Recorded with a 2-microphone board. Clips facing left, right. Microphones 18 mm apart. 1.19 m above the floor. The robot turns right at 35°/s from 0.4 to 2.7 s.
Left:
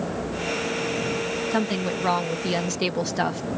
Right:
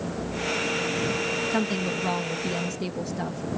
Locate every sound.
1.5 s a woman speaking: 10° left; by 3.4 s 55° left